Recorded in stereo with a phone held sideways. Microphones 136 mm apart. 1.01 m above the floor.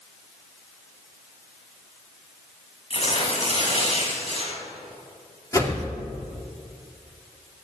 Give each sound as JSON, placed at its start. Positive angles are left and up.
{"t": 2.9, "sound": "tearing paper", "side_deg": 50, "distance_m": 6.0}
{"t": 5.5, "sound": "a whoosh", "side_deg": 25, "distance_m": 2.5}